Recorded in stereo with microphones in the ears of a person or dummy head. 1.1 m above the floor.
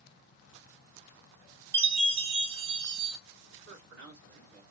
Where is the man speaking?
75° right (ahead or behind), 3 m.